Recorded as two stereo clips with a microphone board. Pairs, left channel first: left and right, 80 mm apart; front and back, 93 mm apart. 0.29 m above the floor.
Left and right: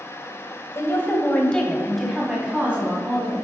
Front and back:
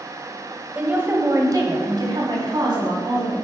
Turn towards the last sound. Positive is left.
turn(degrees=-155)